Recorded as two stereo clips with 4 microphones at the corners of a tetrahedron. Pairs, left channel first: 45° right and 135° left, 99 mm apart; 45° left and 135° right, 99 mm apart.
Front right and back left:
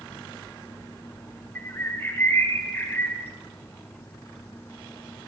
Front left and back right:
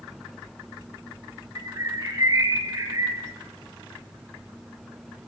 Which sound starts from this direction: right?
A bird, at 1.6 s.